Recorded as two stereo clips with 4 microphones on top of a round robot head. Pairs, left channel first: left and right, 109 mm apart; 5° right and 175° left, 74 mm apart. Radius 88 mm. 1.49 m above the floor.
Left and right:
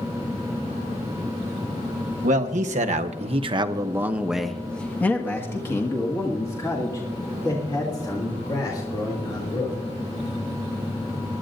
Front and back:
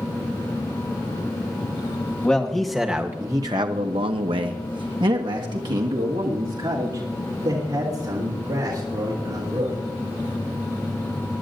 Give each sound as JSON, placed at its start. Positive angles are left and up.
{"t": 2.2, "sound": "a man speaking", "azimuth_deg": -85, "distance_m": 1.3}